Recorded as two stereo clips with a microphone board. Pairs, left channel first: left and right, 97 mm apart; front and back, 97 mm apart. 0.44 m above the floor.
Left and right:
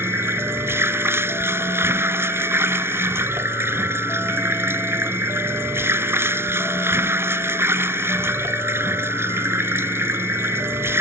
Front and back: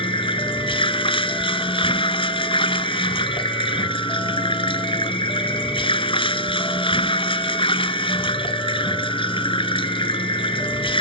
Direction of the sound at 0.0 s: 25° right.